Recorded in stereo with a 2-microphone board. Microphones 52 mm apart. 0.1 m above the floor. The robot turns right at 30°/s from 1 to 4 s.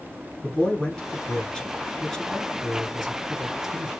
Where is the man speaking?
25° left (ahead or behind), 1.1 m; by 3.9 s 10° right (ahead or behind), 1.1 m.